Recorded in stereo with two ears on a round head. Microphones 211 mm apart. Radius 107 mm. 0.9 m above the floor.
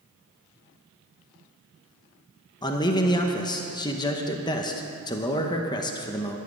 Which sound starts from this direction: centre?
A man speaking, at 2.6 s.